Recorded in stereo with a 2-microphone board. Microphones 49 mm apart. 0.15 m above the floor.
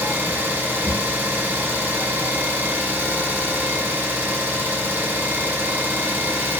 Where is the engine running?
40° right (ahead or behind), 0.9 m.